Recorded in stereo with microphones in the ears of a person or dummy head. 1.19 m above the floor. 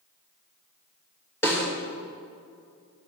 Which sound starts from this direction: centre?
A snare drum, at 1.4 s.